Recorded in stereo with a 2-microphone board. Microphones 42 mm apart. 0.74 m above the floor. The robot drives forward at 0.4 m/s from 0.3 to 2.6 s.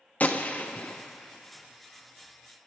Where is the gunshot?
40° left (ahead or behind), 0.9 m; by 2.7 s 25° left (ahead or behind), 1.3 m.